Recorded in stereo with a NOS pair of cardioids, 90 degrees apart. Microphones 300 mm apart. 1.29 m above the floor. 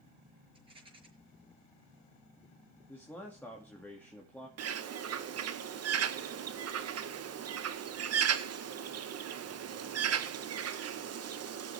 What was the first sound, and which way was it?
A rattle, 20° right.